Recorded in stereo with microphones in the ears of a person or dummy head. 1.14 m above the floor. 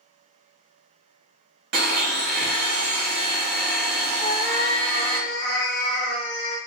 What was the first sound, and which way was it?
A blender, 55° right (ahead or behind).